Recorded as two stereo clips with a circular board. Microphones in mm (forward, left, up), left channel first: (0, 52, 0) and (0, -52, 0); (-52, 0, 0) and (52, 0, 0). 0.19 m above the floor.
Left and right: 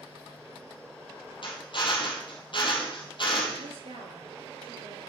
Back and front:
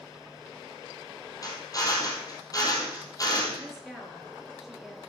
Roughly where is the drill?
Behind left.